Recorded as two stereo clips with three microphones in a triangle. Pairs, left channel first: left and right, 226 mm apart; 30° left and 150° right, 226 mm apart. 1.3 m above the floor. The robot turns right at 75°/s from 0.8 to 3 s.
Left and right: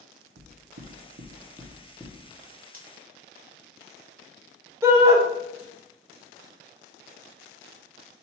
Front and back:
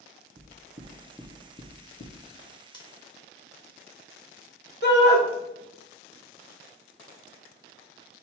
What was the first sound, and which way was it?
Knocking, 90° right.